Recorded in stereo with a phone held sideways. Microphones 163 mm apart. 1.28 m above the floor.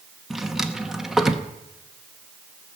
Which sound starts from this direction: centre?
A drawer, at 0.3 s.